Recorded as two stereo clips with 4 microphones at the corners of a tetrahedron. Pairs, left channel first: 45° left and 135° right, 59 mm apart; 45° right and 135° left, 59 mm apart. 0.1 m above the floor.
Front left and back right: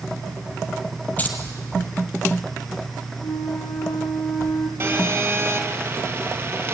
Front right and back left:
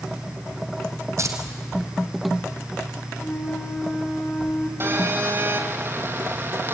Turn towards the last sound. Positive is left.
turn(degrees=175)